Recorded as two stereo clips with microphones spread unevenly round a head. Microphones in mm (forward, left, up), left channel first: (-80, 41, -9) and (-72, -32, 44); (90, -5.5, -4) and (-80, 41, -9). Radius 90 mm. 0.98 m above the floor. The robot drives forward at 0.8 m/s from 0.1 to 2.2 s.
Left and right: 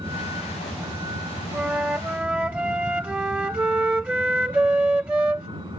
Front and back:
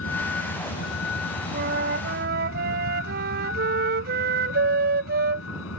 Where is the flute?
150° right; by 5.5 s 155° right.